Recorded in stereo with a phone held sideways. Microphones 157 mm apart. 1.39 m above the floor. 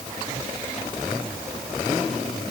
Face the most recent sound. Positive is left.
No sound to turn to.